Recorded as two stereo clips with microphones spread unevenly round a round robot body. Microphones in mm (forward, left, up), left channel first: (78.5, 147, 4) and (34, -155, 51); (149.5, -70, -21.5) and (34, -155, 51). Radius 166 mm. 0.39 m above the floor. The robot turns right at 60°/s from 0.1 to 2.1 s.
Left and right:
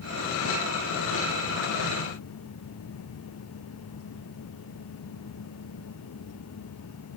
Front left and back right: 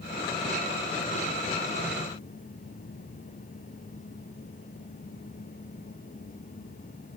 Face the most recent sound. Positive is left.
No sound to turn to.